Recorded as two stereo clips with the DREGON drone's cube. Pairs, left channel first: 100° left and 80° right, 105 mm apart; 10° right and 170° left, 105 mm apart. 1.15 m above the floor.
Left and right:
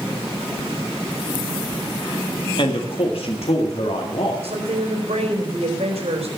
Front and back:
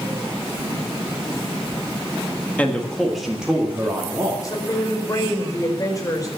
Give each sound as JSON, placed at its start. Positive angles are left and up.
{"t": 2.6, "sound": "a man speaking", "azimuth_deg": 65, "distance_m": 1.6}
{"t": 4.4, "sound": "a woman speaking", "azimuth_deg": -70, "distance_m": 4.5}